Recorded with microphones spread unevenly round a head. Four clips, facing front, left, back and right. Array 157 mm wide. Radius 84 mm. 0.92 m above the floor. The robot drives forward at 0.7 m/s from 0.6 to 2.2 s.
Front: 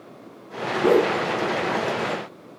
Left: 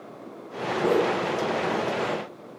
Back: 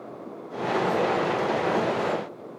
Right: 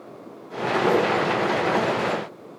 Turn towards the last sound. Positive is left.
turn(degrees=35)